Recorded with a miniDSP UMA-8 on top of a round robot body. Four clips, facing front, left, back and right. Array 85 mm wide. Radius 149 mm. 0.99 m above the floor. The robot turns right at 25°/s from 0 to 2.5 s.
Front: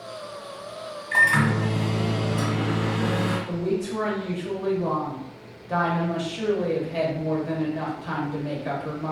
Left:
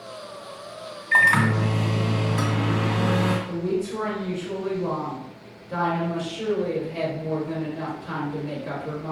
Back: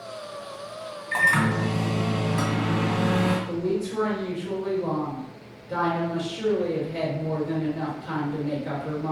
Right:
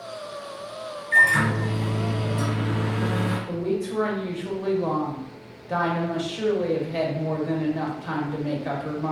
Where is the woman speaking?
60° right, 1.4 m.